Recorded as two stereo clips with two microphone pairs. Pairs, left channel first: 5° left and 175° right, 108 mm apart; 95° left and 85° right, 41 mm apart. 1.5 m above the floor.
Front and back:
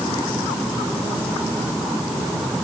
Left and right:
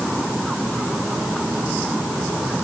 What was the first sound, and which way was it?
Only background noise.